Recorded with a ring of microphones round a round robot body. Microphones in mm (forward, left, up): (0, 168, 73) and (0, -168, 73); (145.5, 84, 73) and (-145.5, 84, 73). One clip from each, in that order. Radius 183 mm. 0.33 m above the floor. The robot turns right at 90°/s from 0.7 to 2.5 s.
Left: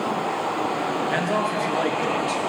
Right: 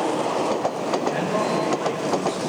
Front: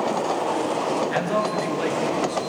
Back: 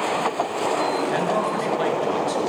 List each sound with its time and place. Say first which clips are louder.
1.1 s a man speaking: even, back 1 dB; 65° left, 6 m; by 2.4 s straight behind, 6 m